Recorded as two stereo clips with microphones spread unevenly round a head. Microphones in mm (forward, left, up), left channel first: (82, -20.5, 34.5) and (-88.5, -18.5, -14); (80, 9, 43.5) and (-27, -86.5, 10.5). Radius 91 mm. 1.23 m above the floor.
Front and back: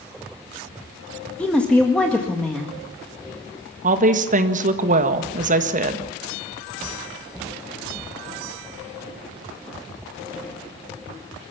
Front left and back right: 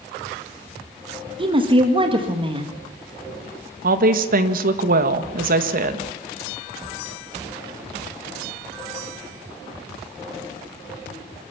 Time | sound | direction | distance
1.4 | a woman speaking | 85° right | 1.7 m
3.8 | a woman speaking | 145° right | 1.6 m